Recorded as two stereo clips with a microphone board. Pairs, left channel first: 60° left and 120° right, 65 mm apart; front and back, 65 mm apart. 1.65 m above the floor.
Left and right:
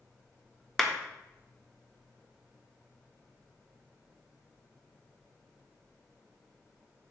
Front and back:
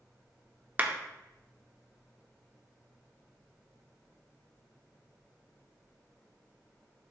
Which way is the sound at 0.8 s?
140° left.